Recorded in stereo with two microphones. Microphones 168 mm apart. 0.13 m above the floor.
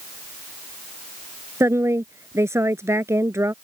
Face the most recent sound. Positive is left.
turn(degrees=-15)  # may be behind; listen again after turning